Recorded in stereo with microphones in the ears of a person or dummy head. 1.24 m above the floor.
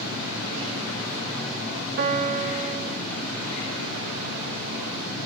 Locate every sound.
2.0 s a piano: 50° right (ahead or behind), 0.6 m